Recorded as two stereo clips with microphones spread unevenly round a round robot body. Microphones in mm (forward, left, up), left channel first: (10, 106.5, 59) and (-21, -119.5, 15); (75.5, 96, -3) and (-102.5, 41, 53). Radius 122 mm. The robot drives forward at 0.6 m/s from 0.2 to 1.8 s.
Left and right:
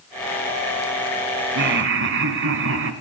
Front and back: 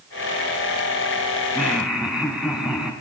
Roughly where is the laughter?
Ahead right.